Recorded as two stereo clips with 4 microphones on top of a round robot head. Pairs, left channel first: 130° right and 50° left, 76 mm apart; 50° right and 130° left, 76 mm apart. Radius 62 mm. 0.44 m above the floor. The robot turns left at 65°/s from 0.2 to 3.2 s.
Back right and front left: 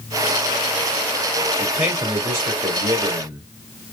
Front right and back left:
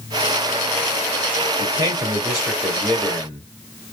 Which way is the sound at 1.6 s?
110° left.